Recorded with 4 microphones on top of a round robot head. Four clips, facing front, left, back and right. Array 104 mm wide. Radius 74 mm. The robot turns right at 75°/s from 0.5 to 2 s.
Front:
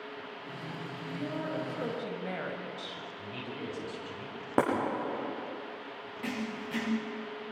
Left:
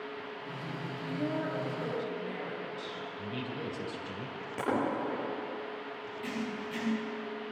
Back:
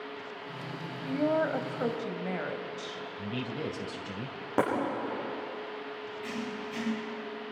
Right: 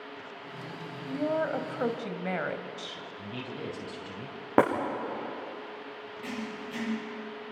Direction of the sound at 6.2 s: Straight ahead.